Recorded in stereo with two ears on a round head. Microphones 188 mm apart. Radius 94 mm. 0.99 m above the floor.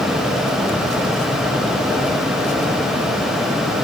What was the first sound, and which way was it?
Only background noise.